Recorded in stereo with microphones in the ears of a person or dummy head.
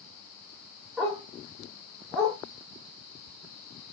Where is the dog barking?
Centre (ahead or behind), 1.4 m.